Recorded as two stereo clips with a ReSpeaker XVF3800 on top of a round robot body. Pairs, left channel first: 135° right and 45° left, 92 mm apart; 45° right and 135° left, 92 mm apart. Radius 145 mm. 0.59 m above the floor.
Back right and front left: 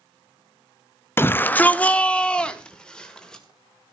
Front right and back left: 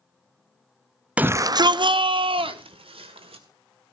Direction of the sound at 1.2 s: 165° right.